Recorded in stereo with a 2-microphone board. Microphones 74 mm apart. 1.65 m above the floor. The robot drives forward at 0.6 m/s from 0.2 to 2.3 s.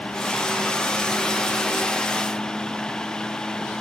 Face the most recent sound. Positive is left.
No sound to turn to.